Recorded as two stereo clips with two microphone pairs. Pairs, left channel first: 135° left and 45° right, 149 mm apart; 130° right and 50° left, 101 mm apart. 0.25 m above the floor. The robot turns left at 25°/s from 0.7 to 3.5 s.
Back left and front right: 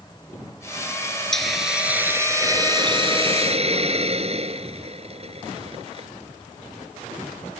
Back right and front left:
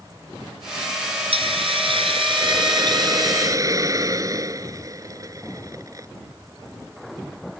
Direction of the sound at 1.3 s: 50° left.